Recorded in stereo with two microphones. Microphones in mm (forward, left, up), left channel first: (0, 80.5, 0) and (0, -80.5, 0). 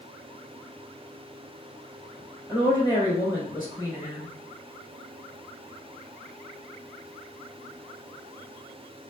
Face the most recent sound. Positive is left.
turn(degrees=15)  # may be behind; listen again after turning